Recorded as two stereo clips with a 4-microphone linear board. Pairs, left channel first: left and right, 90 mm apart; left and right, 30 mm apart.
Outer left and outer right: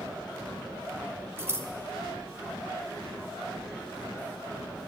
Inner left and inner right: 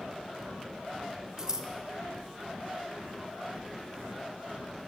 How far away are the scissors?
About 0.8 m.